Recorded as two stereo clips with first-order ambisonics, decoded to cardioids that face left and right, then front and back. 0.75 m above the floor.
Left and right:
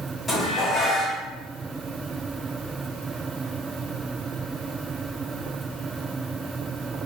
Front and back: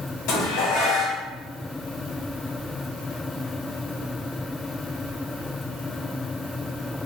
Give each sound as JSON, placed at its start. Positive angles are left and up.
{"t": 0.3, "sound": "dishes clattering", "azimuth_deg": 15, "distance_m": 0.9}